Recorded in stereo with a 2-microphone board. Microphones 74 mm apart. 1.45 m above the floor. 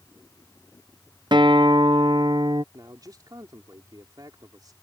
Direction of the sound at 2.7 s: 60° right (ahead or behind).